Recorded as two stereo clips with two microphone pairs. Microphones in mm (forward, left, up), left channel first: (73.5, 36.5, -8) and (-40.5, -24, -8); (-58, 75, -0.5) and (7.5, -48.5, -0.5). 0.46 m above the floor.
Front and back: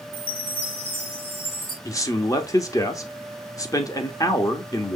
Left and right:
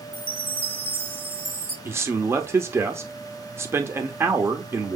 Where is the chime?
65° left, 1.7 m.